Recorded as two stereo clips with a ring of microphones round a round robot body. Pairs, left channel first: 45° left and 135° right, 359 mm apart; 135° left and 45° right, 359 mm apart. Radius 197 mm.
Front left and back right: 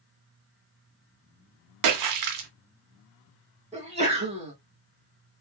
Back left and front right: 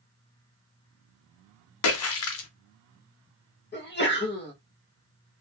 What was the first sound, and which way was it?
A splash, 175° right.